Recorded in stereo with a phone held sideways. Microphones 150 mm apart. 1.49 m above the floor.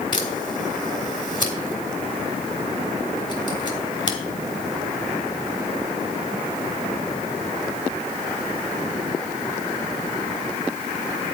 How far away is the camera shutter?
About 2 m.